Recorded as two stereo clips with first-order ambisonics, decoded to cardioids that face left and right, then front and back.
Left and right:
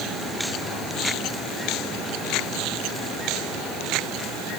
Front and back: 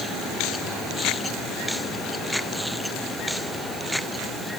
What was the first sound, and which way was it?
Only background noise.